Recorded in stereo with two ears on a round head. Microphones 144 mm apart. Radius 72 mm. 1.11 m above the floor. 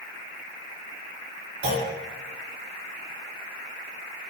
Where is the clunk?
65° right (ahead or behind), 2.5 m.